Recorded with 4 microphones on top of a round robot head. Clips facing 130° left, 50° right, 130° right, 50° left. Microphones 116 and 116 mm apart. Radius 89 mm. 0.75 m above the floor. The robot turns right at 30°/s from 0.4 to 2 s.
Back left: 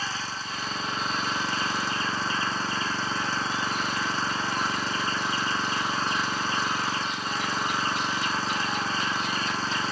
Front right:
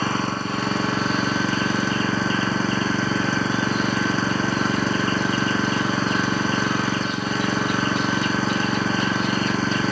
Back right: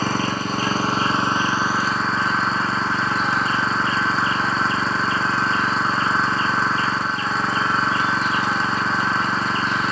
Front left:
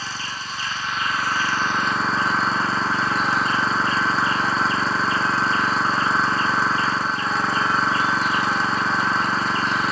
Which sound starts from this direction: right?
An engine running, at 0.0 s.